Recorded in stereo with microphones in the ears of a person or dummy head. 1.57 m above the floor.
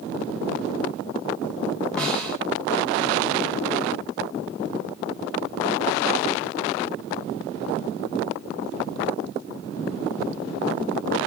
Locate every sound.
2.0 s a snare drum: 5° left (ahead or behind), 4 m